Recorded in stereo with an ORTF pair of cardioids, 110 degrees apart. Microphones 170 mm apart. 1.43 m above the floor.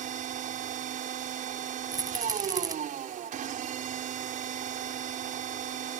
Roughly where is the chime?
No chime in this recording.